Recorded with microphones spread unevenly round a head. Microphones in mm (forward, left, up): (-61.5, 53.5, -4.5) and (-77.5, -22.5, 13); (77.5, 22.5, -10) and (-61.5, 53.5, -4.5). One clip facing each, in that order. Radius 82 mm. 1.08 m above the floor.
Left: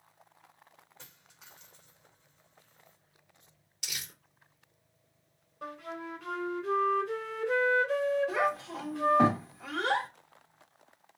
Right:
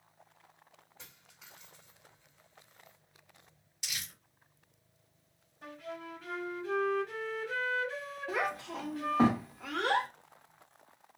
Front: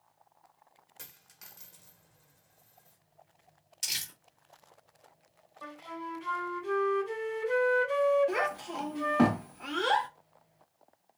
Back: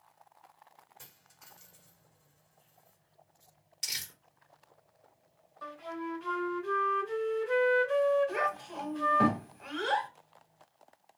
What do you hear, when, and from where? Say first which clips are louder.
1.0 s a dropped coin: right 1 dB, front 2 dB; 5° right, 1.5 m
3.8 s crumpling: even, front 1 dB; 30° left, 2.5 m
5.6 s a flute: left 3 dB, back 3 dB; 60° left, 2.5 m
8.3 s a child speaking: left 4 dB, front 2 dB; 15° right, 1.5 m